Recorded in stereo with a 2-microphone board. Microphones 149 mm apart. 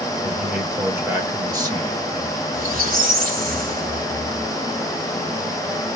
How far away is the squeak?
About 0.9 m.